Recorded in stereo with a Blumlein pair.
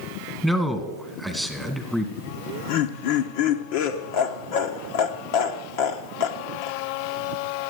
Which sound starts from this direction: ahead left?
Laughter, at 2.2 s.